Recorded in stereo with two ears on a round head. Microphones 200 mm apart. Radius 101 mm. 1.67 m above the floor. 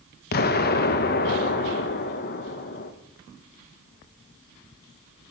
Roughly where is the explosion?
Left.